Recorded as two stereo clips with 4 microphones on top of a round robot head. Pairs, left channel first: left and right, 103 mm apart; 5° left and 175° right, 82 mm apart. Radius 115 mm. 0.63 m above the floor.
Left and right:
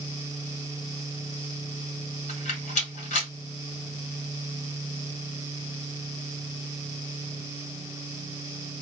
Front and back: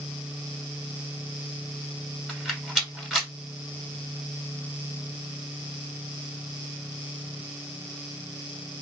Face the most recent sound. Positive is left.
turn(degrees=100)